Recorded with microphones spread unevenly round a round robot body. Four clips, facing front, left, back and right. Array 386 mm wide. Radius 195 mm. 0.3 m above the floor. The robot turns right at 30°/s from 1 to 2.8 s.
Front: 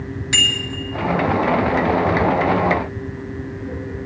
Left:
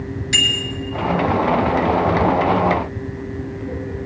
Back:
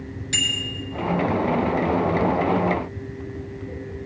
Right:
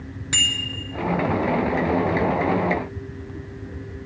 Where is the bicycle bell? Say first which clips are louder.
Left 4 dB, front 5 dB; 40° right, 3 m.